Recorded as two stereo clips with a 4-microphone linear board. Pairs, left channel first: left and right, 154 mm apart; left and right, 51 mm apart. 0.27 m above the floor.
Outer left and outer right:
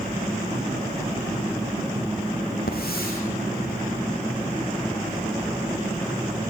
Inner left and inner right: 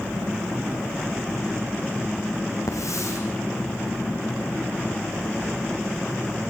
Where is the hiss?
85° left, 7 m.